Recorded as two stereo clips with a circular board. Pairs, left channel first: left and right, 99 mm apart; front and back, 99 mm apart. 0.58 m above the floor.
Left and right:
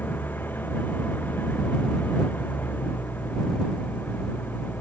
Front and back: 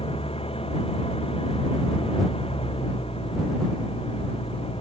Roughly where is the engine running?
Ahead.